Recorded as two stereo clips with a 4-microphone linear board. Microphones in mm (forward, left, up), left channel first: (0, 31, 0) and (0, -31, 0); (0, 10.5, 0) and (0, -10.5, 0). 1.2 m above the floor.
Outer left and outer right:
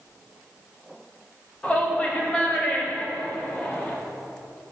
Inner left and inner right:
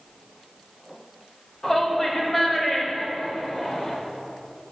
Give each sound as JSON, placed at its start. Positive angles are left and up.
{"t": 1.6, "sound": "a shout", "side_deg": 20, "distance_m": 2.0}